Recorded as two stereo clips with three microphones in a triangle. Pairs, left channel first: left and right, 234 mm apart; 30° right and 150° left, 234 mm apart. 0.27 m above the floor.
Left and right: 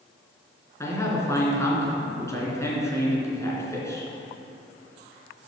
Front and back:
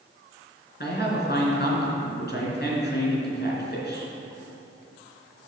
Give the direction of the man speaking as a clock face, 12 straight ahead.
12 o'clock.